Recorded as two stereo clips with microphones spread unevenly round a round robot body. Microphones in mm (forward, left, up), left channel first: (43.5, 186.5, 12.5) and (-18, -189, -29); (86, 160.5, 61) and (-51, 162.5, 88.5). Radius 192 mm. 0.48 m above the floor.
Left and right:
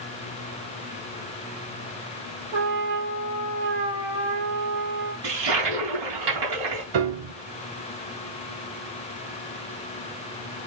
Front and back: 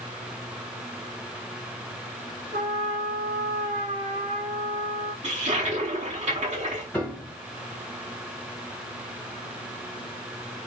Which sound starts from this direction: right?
A piano, at 6.9 s.